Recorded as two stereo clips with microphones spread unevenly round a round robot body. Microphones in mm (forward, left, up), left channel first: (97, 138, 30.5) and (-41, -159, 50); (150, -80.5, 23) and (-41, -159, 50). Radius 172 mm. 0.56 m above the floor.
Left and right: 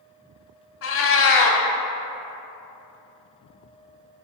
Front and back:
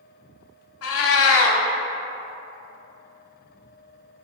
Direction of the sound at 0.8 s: 10° left.